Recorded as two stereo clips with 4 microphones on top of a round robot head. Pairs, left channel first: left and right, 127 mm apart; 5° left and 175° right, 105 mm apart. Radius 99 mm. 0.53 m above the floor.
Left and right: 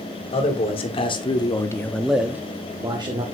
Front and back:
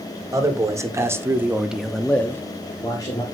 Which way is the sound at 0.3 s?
130° left.